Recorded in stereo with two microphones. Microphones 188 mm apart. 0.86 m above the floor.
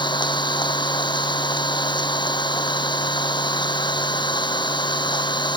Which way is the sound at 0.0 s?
25° left (ahead or behind).